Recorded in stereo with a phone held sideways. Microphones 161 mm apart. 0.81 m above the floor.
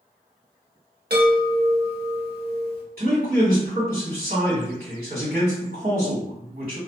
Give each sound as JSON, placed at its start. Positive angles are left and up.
{"t": 1.1, "sound": "a chime", "side_deg": -80, "distance_m": 1.3}
{"t": 3.0, "sound": "a man speaking", "side_deg": -65, "distance_m": 1.8}